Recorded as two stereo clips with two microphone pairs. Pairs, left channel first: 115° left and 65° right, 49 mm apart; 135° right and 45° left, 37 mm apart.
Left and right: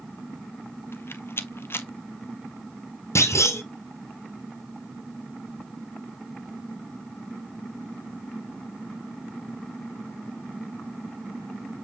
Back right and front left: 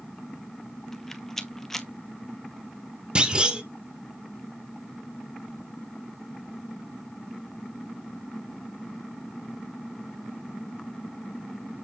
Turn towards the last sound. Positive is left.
turn(degrees=105)